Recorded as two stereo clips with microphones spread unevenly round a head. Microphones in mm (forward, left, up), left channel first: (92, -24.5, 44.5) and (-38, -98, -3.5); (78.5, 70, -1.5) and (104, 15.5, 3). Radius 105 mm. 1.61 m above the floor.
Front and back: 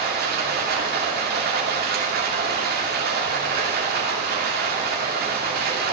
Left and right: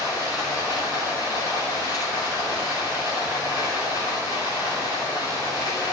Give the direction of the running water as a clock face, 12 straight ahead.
4 o'clock.